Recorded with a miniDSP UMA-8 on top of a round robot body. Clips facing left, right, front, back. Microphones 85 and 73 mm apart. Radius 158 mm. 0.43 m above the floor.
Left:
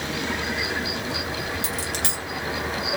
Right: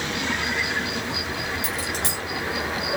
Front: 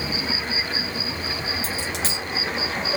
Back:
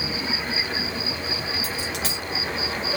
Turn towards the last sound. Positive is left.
turn(degrees=65)